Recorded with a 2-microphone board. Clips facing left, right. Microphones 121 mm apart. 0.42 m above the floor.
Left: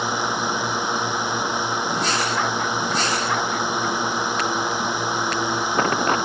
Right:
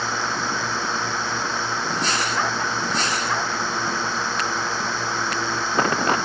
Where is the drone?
15° left (ahead or behind).